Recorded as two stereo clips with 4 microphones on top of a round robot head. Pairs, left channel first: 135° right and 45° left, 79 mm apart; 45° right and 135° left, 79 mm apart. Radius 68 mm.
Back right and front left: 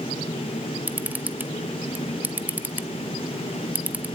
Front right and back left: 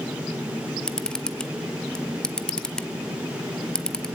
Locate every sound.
0.9 s a camera shutter: 20° left, 0.9 m